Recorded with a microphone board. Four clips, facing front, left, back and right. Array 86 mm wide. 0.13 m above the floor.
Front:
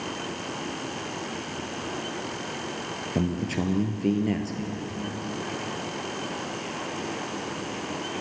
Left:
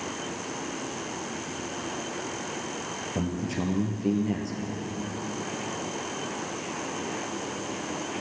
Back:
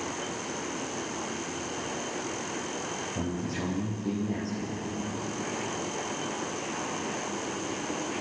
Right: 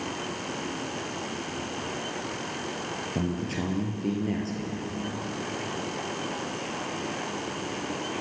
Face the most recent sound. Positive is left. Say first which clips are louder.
# left 1 dB, front 7 dB
turn(degrees=0)